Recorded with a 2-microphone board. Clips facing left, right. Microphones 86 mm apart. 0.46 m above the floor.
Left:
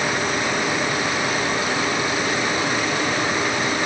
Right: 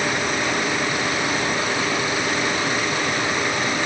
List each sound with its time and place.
Only background noise.